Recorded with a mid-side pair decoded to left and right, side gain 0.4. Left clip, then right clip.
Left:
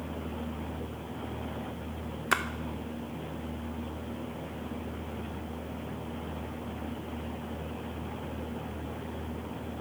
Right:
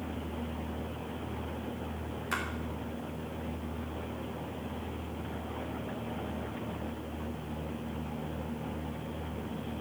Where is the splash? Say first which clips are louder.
Left 6 dB; 65° left, 1.1 m.